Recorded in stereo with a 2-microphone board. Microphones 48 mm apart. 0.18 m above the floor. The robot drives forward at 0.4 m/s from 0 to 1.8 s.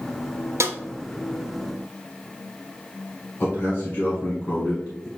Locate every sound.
0.6 s a snare drum: 75° right (ahead or behind), 0.5 m; by 0.8 s 80° right, 0.5 m
3.4 s a man speaking: 45° left (ahead or behind), 1.4 m